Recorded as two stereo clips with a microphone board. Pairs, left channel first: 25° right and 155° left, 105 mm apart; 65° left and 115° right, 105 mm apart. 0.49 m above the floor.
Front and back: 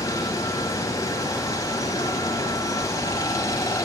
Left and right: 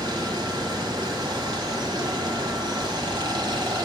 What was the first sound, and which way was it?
Running water, 75° right.